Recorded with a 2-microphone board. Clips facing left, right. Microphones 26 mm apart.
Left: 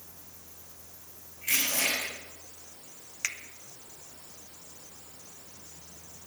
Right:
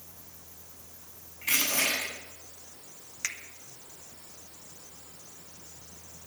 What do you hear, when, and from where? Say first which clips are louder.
1.4 s crushing: right 1 dB; 35° right (ahead or behind), 8 m
3.2 s a finger snap: left 1 dB; 10° left (ahead or behind), 1.1 m